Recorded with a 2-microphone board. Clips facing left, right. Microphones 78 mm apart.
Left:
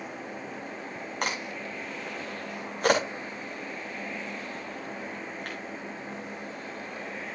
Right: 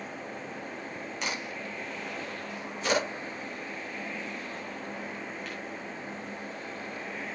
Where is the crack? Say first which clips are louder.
Left 4 dB; 55° left (ahead or behind), 3 m.